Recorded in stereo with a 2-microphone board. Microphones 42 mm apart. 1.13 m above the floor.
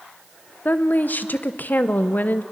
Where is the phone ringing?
I don't hear a phone ringing.